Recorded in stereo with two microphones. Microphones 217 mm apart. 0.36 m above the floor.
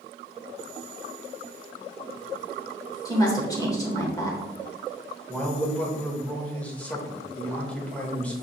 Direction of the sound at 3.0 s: 15° left (ahead or behind).